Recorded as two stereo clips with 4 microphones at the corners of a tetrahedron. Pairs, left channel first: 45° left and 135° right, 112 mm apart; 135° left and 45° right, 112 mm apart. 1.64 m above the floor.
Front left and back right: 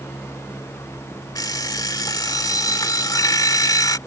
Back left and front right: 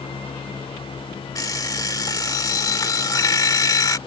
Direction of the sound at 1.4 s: 90° left.